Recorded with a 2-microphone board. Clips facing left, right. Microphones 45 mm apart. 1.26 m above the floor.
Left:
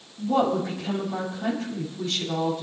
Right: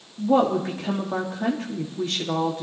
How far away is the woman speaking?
About 1.9 m.